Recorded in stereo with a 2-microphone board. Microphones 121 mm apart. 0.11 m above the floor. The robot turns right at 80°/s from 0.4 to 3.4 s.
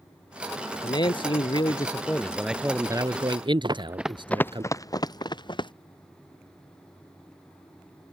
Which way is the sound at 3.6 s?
40° right (ahead or behind).